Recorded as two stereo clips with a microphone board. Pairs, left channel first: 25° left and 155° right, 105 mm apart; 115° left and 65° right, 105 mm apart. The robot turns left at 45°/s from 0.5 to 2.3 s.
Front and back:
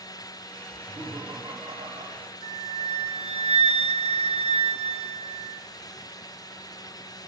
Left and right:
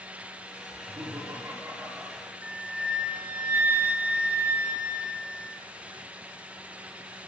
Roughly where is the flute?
Behind right.